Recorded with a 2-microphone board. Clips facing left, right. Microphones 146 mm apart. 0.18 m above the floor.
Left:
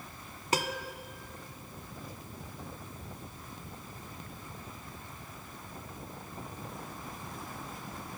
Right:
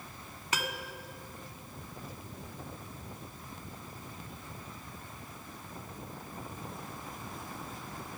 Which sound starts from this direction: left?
A piano, at 0.5 s.